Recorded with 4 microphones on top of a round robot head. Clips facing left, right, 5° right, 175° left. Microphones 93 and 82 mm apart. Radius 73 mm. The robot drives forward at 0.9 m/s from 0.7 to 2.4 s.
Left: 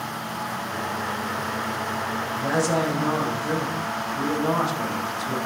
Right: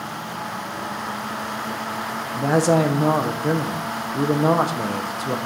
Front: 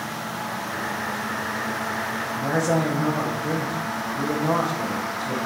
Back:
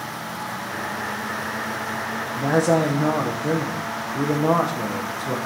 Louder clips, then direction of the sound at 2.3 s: Right 6 dB, back 4 dB; 125° right.